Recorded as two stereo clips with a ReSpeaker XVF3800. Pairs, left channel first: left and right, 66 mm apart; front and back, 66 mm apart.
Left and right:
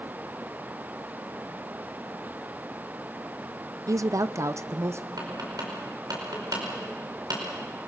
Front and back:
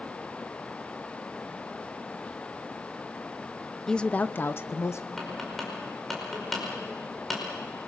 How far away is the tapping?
About 5 m.